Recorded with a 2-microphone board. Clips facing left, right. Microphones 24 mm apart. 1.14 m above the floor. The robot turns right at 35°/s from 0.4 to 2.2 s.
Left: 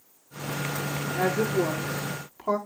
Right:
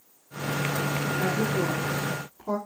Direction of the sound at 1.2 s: 65° left.